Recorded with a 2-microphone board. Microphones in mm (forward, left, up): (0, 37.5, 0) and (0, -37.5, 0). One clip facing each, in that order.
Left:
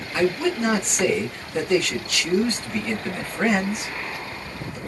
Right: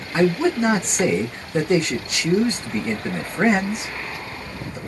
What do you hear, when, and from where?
0.1 s a man speaking: 25° right (ahead or behind), 0.9 m